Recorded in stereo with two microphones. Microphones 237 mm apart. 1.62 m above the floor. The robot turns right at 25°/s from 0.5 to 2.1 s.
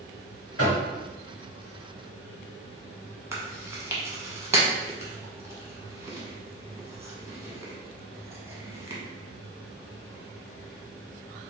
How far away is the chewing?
About 0.9 m.